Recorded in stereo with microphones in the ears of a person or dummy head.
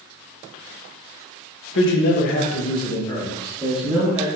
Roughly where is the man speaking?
Left.